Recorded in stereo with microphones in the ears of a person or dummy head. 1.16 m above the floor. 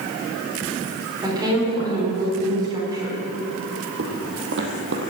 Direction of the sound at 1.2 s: 20° right (ahead or behind).